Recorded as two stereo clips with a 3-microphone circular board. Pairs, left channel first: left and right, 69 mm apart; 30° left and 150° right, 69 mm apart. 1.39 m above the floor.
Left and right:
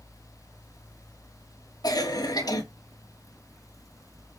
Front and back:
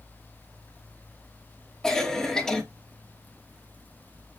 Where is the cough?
110° left, 2.5 m.